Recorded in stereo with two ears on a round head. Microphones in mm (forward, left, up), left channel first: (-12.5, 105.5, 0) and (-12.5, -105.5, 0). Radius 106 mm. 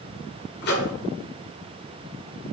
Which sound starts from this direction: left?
A microwave, at 0.6 s.